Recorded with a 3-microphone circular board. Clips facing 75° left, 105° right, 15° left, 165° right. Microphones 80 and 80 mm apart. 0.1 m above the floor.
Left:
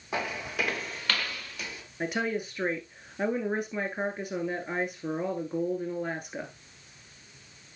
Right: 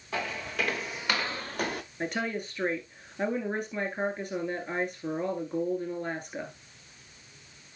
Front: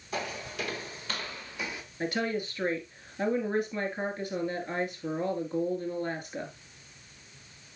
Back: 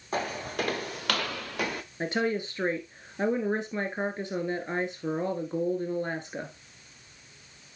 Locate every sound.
0.1 s footsteps: 145° left, 2 m; by 1.8 s 125° right, 1.1 m
2.0 s a woman speaking: 150° left, 1.5 m